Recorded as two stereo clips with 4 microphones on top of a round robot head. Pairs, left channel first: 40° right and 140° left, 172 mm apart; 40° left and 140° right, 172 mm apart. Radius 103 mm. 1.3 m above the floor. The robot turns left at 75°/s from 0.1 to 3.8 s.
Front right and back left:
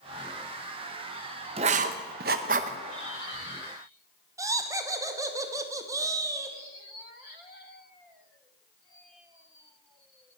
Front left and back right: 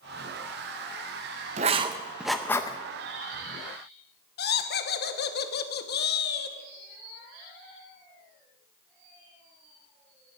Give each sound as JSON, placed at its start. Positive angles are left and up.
{"t": 1.6, "sound": "writing", "azimuth_deg": -175, "distance_m": 0.5}
{"t": 4.4, "sound": "laughter", "azimuth_deg": 65, "distance_m": 1.3}